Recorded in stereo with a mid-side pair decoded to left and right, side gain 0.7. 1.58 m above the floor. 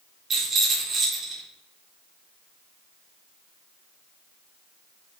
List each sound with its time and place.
0.3 s a rattle: 35° right, 4 m